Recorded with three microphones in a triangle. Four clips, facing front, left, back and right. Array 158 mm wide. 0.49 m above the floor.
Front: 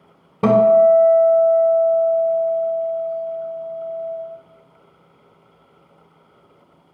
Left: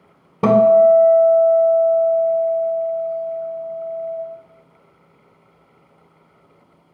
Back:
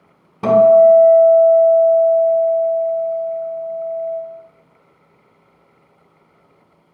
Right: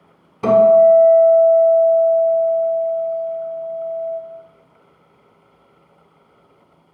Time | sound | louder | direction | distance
0.4 | a guitar | right 1 dB, back 3 dB | 60° left | 0.7 m